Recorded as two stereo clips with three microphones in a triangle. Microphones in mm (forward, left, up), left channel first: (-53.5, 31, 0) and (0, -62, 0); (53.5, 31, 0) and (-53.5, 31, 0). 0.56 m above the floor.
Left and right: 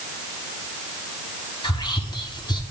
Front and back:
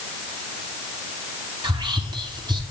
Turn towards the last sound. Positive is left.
turn(degrees=155)